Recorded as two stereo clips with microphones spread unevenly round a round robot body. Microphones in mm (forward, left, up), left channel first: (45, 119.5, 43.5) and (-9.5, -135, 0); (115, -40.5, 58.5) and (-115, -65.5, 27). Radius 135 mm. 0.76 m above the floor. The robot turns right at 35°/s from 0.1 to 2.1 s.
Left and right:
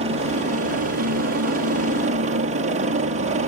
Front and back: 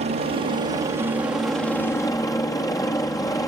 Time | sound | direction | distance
0.0 | a helicopter | 140° right | ?